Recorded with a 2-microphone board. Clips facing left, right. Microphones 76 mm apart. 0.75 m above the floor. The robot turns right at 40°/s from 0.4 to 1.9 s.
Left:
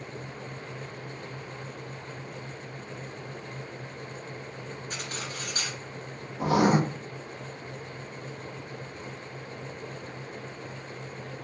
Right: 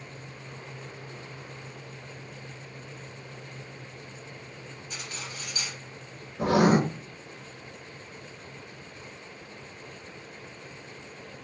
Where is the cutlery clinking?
50° left (ahead or behind), 1.4 m.